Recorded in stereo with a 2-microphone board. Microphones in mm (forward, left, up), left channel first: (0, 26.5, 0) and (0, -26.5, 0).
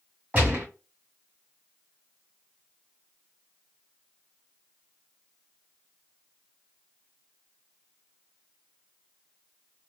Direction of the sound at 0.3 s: 35° right (ahead or behind).